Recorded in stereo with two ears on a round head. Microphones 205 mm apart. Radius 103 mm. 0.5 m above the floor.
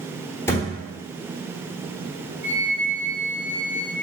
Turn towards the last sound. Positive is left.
turn(degrees=-50)  # may be behind; listen again after turning